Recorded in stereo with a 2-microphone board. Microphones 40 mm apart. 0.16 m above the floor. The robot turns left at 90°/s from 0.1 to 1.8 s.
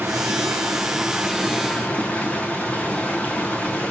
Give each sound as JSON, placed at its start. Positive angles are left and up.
{"t": 0.0, "sound": "running water", "azimuth_deg": -55, "distance_m": 1.8}